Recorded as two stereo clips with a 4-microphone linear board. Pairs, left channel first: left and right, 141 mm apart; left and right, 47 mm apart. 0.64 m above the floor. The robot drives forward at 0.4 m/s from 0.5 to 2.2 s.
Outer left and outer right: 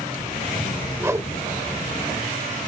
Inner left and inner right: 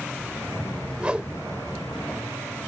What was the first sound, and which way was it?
A whoosh, 20° right (ahead or behind).